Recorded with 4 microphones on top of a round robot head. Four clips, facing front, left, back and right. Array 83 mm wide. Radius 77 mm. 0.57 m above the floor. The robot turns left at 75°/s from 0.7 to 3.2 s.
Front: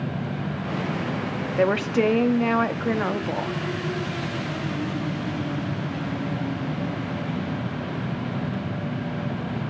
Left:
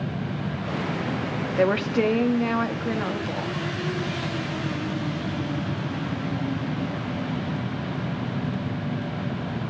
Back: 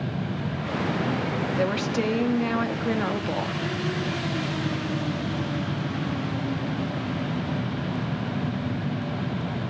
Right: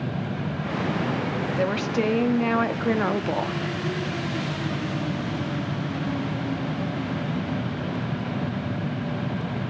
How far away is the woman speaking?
About 0.9 m.